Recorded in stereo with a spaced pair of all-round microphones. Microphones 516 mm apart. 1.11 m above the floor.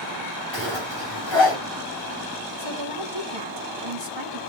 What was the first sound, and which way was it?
A zipper, 65° left (ahead or behind).